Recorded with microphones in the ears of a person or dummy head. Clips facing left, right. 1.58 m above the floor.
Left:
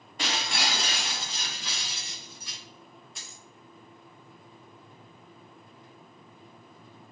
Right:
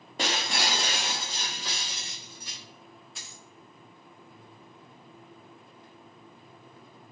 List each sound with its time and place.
0.2 s breaking glass: 30° right (ahead or behind), 0.7 m
3.1 s a dropped coin: 5° right (ahead or behind), 1.1 m